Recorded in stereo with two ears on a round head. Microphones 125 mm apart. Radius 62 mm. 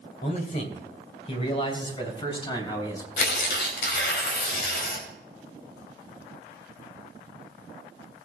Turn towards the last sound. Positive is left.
turn(degrees=80)